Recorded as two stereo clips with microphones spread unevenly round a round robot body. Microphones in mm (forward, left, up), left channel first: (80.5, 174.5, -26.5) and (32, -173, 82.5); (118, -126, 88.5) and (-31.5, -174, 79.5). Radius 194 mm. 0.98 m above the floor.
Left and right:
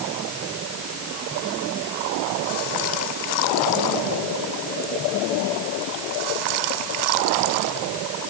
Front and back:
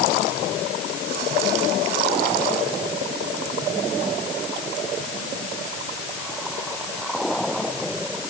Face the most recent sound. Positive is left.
No sound to turn to.